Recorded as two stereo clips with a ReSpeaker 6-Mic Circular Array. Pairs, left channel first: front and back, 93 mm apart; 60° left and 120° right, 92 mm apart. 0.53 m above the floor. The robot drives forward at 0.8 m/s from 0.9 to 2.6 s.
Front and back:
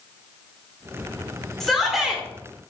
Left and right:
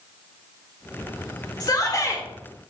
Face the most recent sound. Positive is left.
turn(degrees=115)